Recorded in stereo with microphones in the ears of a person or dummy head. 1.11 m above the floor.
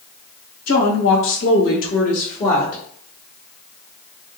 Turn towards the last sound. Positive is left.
turn(degrees=30)  # may be behind; listen again after turning